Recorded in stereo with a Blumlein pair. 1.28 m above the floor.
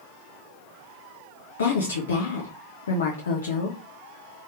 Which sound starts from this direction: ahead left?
A woman speaking, at 1.6 s.